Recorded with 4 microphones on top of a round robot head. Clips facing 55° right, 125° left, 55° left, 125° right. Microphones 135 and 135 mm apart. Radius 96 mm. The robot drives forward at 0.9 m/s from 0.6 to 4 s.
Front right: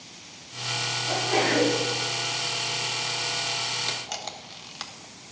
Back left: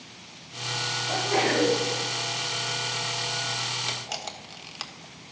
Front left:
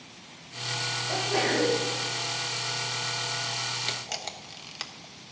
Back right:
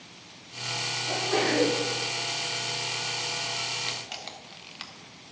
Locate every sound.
1.1 s a sneeze: 115° right, 4 m; by 1.8 s 120° right, 4.5 m
3.9 s a camera shutter: 35° left, 1.3 m; by 5.3 s 40° left, 1.3 m